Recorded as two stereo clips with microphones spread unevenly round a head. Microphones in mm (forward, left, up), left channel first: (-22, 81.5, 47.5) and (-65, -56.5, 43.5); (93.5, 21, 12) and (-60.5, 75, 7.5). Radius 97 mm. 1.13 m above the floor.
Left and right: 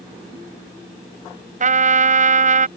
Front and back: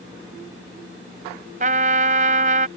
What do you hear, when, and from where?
1.6 s a trumpet: 145° right